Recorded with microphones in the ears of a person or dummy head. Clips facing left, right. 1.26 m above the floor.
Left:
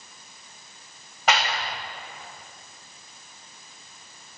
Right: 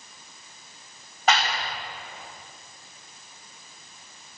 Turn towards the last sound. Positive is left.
turn(degrees=55)  # may be behind; listen again after turning